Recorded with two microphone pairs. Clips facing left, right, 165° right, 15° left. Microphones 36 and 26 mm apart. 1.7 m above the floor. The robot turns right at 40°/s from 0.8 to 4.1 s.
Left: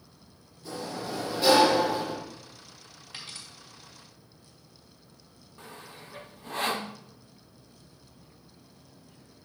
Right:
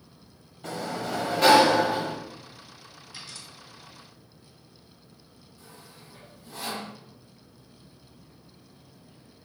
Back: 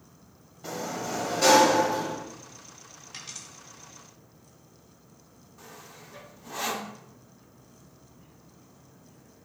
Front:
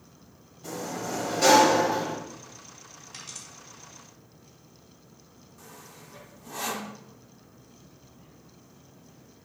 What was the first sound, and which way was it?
A sliding door, 100° right.